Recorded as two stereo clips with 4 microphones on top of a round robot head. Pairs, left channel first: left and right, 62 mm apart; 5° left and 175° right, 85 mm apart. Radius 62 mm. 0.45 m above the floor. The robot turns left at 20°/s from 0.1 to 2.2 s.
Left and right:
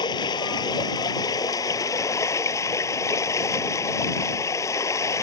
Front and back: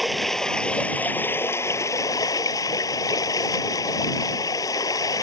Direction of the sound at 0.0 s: 95° left.